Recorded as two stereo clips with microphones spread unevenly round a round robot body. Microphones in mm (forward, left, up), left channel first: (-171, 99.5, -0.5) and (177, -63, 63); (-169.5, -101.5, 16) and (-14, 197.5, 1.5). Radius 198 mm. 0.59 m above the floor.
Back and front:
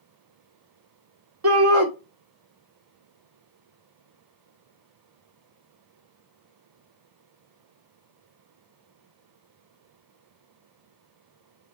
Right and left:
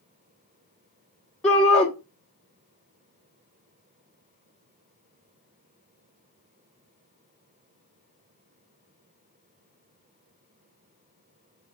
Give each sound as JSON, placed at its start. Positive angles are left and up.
{"t": 1.4, "sound": "a shout", "azimuth_deg": -30, "distance_m": 1.0}